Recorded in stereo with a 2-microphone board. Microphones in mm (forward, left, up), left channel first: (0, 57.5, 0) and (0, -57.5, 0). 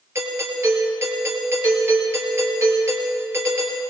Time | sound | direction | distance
0.1 | a doorbell | 25° right (ahead or behind) | 4 m